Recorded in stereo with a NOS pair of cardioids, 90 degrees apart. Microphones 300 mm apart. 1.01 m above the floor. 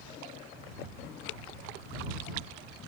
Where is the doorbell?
I don't hear a doorbell.